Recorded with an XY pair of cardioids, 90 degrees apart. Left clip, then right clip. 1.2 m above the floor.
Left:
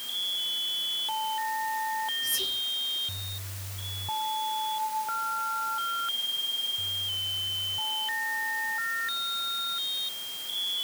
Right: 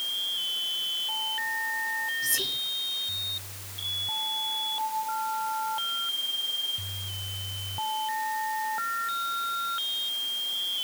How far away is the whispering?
About 0.7 m.